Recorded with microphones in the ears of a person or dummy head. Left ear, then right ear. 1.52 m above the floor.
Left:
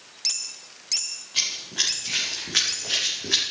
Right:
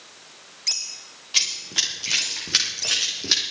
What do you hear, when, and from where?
1.3 s running footsteps: 40° right (ahead or behind), 6 m; by 3.4 s 60° right (ahead or behind), 4 m